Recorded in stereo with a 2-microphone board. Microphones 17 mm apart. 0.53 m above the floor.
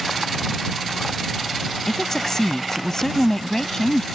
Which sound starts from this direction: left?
A woman speaking, at 1.9 s.